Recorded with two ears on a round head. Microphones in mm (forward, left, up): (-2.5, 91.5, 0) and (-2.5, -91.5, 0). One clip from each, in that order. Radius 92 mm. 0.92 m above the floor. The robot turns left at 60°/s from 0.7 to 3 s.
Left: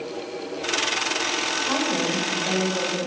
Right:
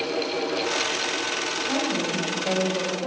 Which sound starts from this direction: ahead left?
A woman speaking, at 1.7 s.